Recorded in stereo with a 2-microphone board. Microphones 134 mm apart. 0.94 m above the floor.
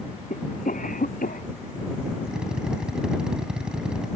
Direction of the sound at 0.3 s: 85° left.